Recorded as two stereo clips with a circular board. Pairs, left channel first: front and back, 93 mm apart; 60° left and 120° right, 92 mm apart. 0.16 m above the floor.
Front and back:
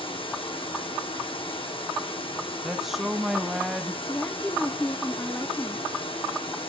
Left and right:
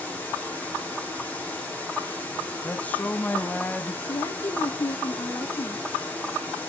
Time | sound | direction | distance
0.0 | running water | 10° right | 6.5 m
2.6 | a woman speaking | 95° left | 1.0 m
4.1 | a woman speaking | 60° left | 1.4 m